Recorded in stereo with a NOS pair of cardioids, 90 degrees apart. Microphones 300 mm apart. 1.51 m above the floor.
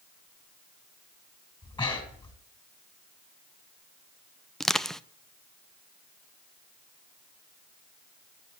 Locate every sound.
1.6 s breathing: 15° left, 5.5 m
4.6 s crushing: straight ahead, 0.5 m